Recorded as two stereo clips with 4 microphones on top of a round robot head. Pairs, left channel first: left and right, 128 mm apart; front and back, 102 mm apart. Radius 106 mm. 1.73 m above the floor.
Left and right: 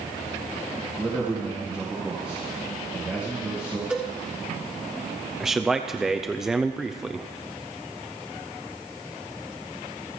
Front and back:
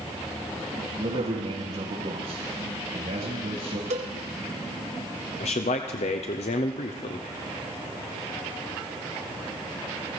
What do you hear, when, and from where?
1.0 s a man speaking: 170° right, 3.5 m
3.9 s a cowbell: 170° right, 1.3 m
5.4 s a man speaking: 5° right, 0.6 m